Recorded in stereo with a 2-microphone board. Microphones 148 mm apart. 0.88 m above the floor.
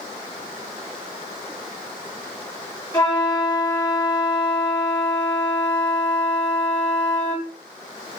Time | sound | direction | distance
2.9 | a flute | 25° left (ahead or behind) | 1.3 m